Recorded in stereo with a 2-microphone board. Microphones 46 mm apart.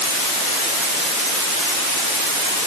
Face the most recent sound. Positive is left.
No sound to turn to.